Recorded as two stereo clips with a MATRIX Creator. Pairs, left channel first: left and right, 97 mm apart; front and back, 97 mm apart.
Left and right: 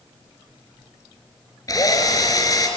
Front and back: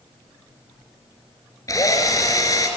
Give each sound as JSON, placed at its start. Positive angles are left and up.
{"t": 1.7, "sound": "a drill", "azimuth_deg": 45, "distance_m": 2.5}